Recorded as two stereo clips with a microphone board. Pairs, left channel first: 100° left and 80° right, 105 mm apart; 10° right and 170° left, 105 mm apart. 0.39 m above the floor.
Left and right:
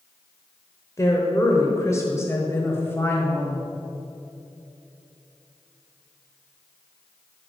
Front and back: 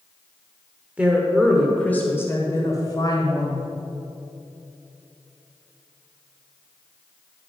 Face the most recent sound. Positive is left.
turn(degrees=30)